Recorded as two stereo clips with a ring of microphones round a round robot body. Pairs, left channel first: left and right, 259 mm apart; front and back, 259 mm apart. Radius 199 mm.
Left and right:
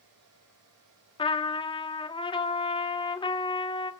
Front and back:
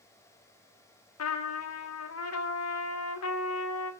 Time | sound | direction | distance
1.2 | a trumpet | 20° left | 2 m